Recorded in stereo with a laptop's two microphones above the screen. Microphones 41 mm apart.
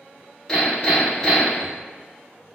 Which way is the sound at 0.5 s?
Centre (ahead or behind).